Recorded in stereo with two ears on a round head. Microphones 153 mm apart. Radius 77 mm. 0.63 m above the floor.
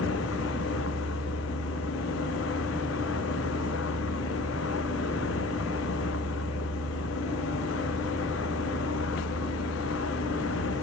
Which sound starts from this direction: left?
A vehicle, at 0.0 s.